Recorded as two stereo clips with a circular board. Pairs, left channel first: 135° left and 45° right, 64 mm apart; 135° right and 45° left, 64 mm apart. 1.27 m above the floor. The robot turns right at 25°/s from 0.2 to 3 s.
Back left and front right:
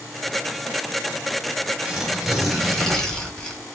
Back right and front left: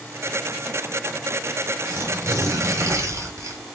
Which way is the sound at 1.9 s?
25° left.